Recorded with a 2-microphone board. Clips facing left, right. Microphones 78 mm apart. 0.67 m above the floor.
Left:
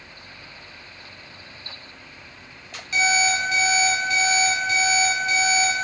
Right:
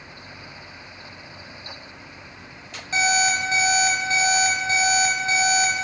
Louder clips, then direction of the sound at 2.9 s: Even; 30° right (ahead or behind).